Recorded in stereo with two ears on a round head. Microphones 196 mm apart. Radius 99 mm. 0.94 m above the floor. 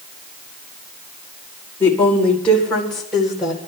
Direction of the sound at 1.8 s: 10° left (ahead or behind).